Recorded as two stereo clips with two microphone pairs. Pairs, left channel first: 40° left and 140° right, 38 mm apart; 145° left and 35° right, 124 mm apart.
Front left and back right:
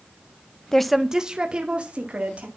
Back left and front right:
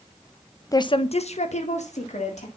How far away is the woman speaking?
About 0.6 m.